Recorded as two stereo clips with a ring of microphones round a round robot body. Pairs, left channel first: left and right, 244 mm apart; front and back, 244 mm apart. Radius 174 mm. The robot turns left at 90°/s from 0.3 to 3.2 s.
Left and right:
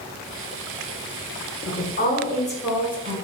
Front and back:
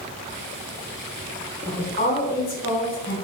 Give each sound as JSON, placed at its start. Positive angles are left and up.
{"t": 1.6, "sound": "a woman speaking", "azimuth_deg": 90, "distance_m": 1.5}